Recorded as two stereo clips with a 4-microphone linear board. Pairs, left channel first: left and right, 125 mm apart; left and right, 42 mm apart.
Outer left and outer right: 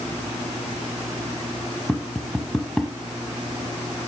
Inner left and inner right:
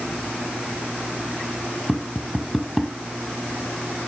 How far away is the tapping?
About 1.3 m.